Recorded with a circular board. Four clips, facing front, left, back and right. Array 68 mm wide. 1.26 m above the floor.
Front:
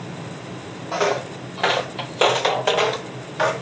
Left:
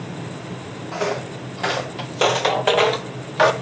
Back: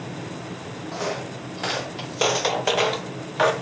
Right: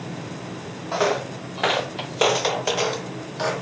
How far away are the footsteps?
About 2.5 m.